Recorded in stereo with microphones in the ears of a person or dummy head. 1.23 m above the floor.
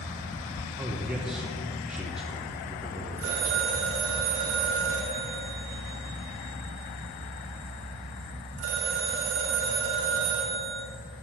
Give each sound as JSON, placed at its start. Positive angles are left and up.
{"t": 0.8, "sound": "a man speaking", "side_deg": -5, "distance_m": 0.8}
{"t": 3.2, "sound": "a phone ringing", "side_deg": -75, "distance_m": 2.5}